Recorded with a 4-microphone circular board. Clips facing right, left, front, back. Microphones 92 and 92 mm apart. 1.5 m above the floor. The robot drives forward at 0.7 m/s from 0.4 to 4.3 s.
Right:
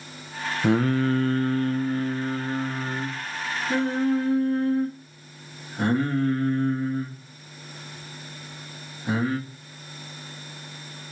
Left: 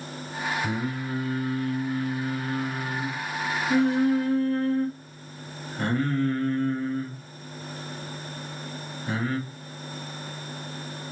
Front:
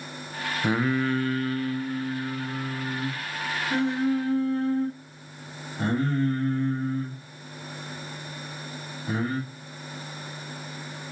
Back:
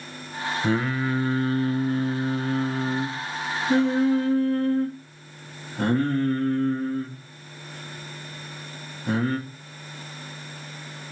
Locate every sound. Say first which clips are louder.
0.6 s singing: right 9 dB, front 1 dB; 75° right, 0.7 m; by 9.4 s 165° right, 2.5 m